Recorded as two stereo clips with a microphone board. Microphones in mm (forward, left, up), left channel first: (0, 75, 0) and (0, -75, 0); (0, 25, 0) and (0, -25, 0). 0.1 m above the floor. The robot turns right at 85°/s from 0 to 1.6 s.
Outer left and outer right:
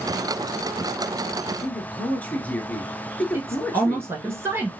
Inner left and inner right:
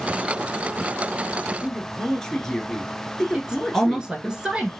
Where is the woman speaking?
15° right (ahead or behind), 1.2 m.